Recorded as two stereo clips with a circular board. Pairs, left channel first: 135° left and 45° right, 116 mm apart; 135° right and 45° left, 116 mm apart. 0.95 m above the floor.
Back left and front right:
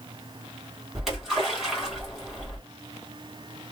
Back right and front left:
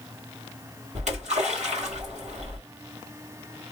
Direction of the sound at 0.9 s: 40° left.